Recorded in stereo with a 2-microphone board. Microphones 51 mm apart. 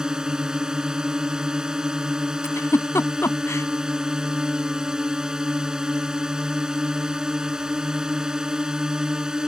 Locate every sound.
0.0 s a drone: 15° right (ahead or behind)
2.4 s a giggle: 70° left (ahead or behind)